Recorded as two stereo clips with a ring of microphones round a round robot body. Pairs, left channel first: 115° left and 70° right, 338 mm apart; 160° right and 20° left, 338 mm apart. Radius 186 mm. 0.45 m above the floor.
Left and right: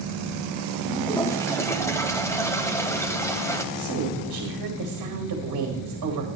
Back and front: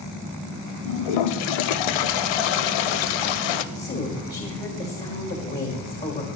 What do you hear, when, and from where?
0.8 s a toilet flushing: 165° right, 0.6 m
3.8 s a woman speaking: 100° right, 2 m